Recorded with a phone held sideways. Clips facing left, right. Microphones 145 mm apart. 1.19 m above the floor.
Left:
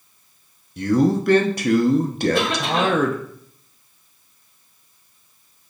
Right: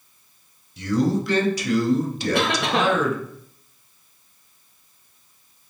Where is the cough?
65° right (ahead or behind), 1.4 m.